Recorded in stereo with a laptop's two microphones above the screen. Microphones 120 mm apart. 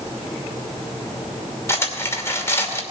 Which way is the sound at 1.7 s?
20° left (ahead or behind).